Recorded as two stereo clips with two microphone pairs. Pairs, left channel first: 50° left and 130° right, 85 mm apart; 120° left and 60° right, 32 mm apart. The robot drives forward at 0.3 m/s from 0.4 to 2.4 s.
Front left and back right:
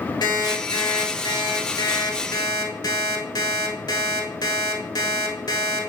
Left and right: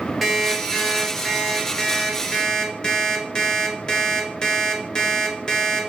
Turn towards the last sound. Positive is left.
turn(degrees=60)